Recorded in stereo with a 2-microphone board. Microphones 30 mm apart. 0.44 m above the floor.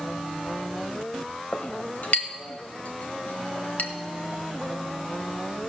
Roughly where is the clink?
Left.